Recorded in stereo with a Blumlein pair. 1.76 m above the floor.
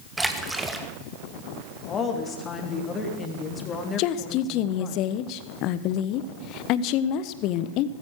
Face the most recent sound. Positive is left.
turn(degrees=40)